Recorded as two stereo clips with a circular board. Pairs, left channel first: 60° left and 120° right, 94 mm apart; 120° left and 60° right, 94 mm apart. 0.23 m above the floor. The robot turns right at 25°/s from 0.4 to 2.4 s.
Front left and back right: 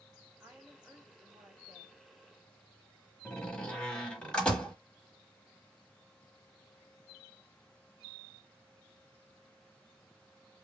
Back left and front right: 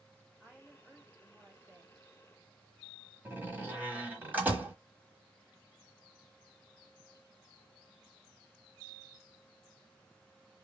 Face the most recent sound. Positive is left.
turn(degrees=-10)